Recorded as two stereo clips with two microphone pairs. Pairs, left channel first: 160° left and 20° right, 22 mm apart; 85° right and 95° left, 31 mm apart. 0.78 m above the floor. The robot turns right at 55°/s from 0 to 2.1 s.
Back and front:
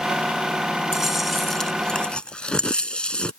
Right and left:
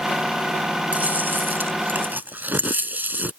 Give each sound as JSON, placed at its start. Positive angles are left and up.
{"t": 0.9, "sound": "chewing", "azimuth_deg": 50}